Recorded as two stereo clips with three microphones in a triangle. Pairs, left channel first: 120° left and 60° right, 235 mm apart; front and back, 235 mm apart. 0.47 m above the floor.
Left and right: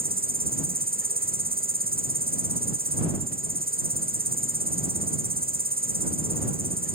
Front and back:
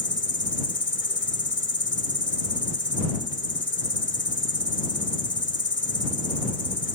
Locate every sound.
0.0 s an insect: 20° right